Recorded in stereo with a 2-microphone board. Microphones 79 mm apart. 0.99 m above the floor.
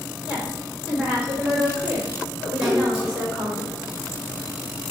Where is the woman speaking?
15° right (ahead or behind), 4 m.